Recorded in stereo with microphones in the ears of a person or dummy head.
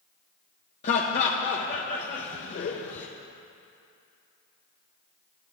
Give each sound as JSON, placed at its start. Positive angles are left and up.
{"t": 0.8, "sound": "laughter", "side_deg": 40, "distance_m": 0.6}